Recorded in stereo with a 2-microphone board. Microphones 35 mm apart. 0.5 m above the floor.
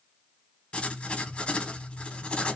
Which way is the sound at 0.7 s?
35° left (ahead or behind).